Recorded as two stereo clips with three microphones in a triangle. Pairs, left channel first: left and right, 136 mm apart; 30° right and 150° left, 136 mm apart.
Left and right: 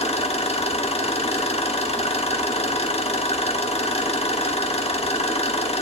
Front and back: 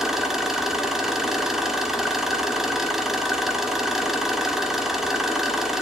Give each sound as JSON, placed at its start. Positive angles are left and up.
{"t": 0.0, "sound": "an engine running", "azimuth_deg": 65, "distance_m": 0.9}